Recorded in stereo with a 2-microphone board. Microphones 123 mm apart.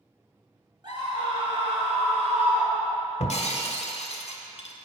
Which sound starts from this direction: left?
Breaking glass, at 3.2 s.